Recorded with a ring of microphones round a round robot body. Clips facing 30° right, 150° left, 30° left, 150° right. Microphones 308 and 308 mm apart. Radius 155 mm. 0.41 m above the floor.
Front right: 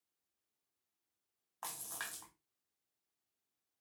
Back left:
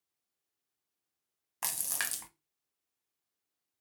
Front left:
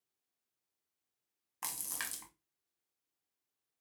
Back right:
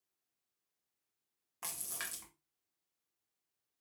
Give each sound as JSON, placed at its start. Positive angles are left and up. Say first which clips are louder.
{"t": 1.6, "sound": "a splash", "louder": "back left 5 dB, front left 1 dB", "azimuth_deg": 105, "distance_m": 0.6}